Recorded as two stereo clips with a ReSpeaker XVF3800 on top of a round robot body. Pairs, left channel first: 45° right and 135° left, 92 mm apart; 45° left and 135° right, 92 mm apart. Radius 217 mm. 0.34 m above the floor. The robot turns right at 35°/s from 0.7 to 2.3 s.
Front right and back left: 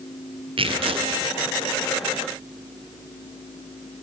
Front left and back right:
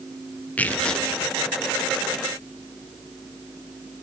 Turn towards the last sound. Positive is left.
turn(degrees=175)